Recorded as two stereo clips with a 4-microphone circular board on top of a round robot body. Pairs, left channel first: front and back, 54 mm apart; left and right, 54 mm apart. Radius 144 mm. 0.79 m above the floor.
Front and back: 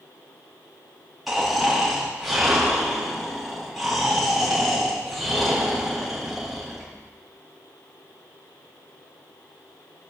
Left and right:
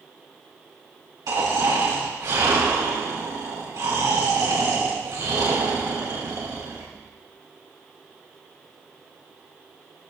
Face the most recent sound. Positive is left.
turn(degrees=-90)